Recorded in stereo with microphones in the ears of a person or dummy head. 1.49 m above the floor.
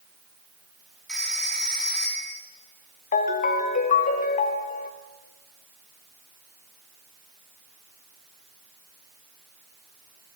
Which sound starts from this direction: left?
A ringtone, at 3.1 s.